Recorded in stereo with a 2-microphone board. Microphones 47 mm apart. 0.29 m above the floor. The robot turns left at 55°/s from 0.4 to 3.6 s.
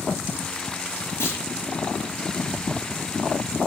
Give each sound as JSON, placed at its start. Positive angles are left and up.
{"t": 1.2, "sound": "a clunk", "side_deg": 60, "distance_m": 4.0}